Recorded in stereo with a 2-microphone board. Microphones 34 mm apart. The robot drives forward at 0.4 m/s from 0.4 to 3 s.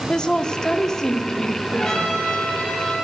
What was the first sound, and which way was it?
A woman speaking, 20° left (ahead or behind).